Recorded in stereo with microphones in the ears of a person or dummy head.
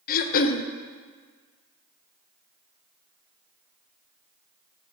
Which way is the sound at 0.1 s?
45° left (ahead or behind).